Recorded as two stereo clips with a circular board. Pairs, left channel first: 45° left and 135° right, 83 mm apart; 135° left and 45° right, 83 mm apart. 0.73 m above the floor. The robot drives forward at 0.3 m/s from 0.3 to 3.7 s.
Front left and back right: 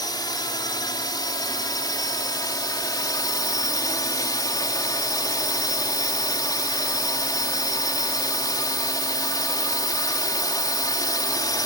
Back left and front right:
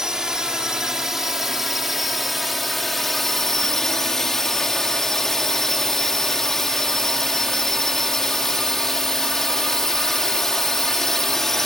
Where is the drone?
35° left; by 11.7 s 50° left.